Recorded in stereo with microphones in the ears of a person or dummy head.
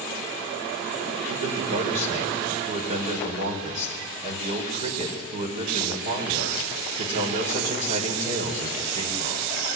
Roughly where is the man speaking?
Right.